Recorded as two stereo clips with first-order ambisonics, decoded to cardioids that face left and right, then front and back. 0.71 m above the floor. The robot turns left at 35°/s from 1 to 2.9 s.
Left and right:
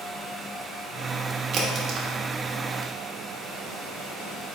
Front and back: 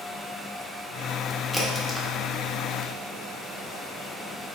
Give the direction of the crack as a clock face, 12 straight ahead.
3 o'clock.